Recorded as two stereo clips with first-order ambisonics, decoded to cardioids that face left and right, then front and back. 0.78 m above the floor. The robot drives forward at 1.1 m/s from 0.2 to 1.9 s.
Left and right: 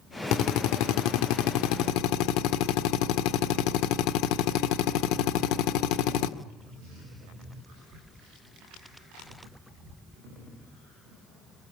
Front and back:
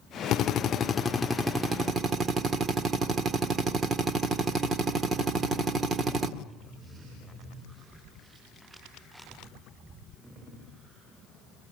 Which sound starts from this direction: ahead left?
A drill, at 0.3 s.